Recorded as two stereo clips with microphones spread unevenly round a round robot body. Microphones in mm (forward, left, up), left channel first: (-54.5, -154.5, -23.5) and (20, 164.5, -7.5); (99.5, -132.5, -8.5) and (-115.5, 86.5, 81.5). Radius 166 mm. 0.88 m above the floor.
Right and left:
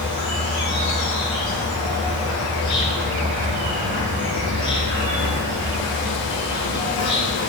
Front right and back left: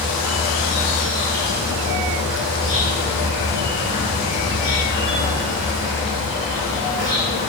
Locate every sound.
0.0 s an insect: 120° right, 3.5 m